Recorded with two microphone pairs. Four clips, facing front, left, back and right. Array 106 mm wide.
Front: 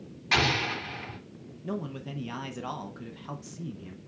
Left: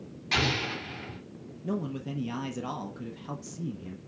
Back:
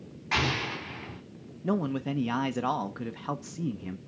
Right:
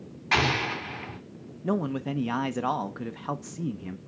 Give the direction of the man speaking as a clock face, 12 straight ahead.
4 o'clock.